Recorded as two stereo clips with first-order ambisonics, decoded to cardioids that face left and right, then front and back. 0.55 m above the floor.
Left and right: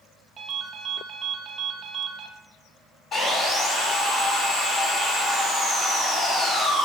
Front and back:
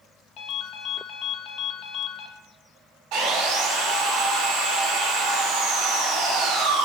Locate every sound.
0.4 s a ringtone: 30° right, 0.5 m
3.1 s sawing: 160° left, 1.1 m